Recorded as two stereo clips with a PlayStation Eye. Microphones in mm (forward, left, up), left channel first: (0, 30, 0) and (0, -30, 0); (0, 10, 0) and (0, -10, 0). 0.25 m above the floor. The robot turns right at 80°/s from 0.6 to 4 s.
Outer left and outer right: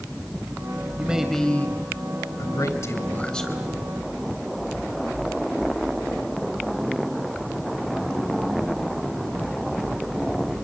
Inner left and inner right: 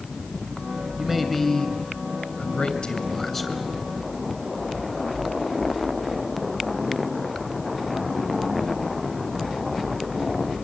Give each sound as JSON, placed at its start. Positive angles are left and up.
{"t": 1.0, "sound": "a man speaking", "azimuth_deg": -25, "distance_m": 3.0}